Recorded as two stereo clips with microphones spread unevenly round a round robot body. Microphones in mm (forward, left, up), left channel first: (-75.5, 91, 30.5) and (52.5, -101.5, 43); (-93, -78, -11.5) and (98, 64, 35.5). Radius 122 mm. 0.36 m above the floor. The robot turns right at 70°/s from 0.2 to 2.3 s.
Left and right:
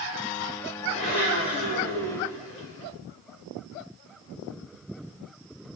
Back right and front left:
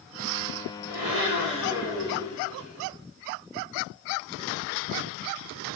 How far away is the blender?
About 8 m.